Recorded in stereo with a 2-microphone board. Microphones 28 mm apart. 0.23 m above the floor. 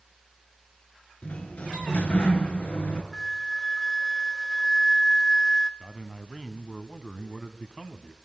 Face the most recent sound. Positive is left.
turn(degrees=15)  # may be behind; listen again after turning